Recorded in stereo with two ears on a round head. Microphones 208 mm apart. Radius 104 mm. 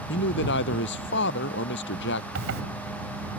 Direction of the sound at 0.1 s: 55° left (ahead or behind).